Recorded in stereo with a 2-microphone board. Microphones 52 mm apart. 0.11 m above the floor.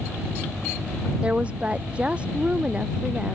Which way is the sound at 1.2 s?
20° right (ahead or behind).